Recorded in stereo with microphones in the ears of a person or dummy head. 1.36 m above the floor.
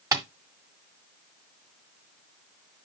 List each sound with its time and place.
0.1 s tapping: 20° right (ahead or behind), 1.7 m